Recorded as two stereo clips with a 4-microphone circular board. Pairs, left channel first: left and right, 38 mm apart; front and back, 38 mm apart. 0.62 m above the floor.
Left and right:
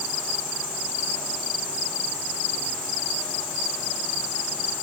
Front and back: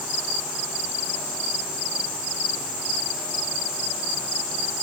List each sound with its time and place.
Only background noise.